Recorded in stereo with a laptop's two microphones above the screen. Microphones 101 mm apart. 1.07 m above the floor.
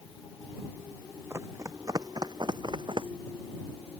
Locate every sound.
1.3 s running footsteps: 25° right (ahead or behind); by 3.1 s 55° right (ahead or behind)